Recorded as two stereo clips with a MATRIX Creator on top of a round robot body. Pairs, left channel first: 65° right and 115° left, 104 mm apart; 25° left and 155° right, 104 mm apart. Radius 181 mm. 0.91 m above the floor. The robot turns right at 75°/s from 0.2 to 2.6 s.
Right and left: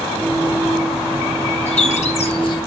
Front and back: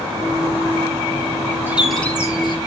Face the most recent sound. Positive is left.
turn(degrees=-15)